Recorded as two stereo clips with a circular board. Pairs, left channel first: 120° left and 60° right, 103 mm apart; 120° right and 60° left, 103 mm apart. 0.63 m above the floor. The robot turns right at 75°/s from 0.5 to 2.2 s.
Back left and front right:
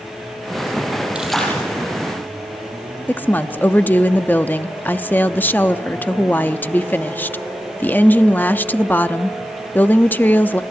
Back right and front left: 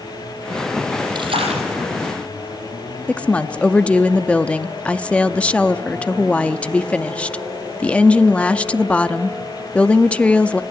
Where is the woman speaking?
175° left, 0.6 m.